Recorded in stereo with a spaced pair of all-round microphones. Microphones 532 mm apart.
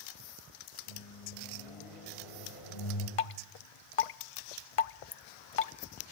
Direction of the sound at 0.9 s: 75° left (ahead or behind).